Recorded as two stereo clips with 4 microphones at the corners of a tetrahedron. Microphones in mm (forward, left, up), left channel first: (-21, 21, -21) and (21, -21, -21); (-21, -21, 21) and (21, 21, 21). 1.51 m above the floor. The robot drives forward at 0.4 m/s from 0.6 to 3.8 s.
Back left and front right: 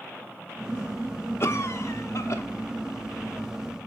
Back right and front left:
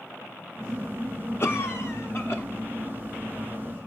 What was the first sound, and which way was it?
A cough, straight behind.